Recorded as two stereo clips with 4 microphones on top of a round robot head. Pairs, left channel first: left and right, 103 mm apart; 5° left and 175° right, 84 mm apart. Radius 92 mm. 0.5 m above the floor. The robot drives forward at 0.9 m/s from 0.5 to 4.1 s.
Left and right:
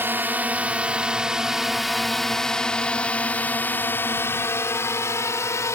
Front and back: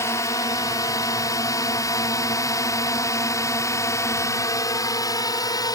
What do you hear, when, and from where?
0.0 s a drone: 30° right; by 5.8 s 35° left